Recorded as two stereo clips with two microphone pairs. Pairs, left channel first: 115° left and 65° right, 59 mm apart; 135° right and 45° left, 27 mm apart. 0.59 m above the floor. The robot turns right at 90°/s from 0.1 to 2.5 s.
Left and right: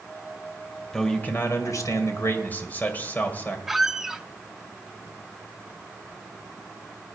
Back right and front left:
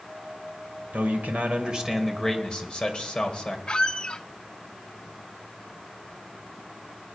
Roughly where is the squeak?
Behind right.